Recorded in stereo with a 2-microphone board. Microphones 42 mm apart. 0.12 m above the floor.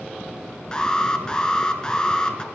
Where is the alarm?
20° left (ahead or behind), 1.3 m.